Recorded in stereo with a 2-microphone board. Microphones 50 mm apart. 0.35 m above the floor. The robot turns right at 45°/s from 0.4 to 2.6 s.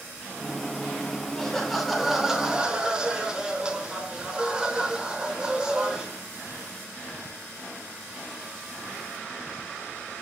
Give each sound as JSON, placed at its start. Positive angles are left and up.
{"t": 1.4, "sound": "laughter", "side_deg": 10, "distance_m": 1.0}